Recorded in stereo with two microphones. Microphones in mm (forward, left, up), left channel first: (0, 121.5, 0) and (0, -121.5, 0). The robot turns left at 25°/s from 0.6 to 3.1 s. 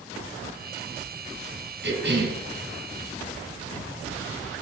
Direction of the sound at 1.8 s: 45° right (ahead or behind).